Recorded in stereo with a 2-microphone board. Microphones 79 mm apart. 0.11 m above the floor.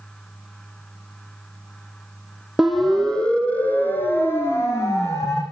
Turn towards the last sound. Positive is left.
turn(degrees=40)  # may be behind; listen again after turning